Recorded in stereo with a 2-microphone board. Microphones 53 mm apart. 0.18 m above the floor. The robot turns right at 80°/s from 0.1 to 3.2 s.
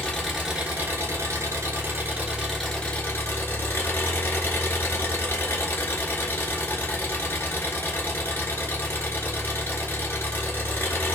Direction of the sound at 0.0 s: 160° left.